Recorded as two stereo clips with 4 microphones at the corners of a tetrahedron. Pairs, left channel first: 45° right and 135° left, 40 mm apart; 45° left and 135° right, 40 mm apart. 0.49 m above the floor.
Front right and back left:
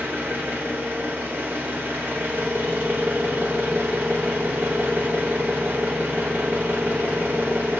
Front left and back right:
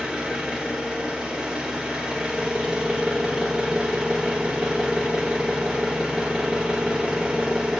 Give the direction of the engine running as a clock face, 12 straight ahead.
7 o'clock.